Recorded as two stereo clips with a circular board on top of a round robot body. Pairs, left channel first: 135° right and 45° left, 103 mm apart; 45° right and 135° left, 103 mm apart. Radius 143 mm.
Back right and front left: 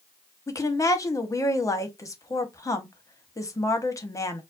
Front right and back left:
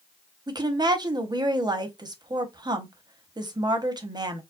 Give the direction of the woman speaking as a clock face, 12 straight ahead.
6 o'clock.